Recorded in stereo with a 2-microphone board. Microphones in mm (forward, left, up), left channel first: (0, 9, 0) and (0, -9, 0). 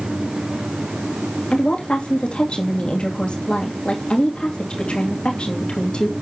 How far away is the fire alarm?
No fire alarm in this recording.